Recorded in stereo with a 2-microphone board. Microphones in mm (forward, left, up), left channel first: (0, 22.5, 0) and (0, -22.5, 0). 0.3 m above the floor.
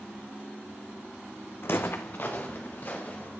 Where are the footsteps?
60° left (ahead or behind), 0.7 m; by 3.3 s 40° left (ahead or behind), 2.5 m.